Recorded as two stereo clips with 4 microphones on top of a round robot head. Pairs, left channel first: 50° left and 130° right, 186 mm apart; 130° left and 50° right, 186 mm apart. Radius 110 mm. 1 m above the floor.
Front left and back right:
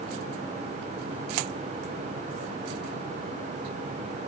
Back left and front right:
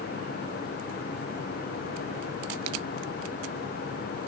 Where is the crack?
No crack in this recording.